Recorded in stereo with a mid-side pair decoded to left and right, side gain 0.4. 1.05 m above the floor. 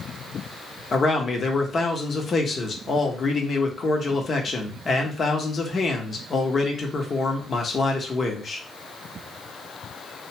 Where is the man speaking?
45° left, 0.9 m.